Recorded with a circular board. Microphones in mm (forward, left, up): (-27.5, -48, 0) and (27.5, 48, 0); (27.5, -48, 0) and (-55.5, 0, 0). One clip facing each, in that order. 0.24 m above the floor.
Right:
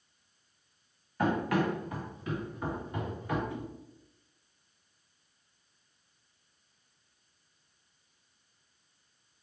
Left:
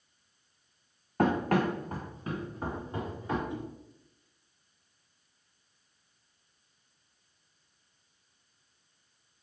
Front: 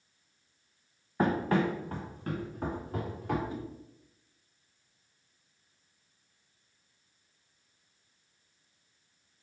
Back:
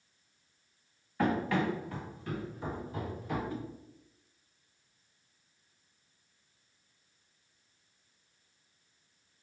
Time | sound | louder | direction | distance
1.2 | running footsteps | left 2 dB, front 2 dB | 30° left | 1.0 m
3.5 | a whoosh | left 2 dB, even | 15° left | 0.9 m